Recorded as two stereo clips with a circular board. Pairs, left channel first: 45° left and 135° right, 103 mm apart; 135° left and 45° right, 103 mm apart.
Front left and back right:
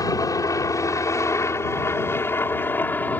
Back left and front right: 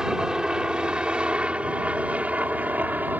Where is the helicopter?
35° left; by 3.2 s straight ahead.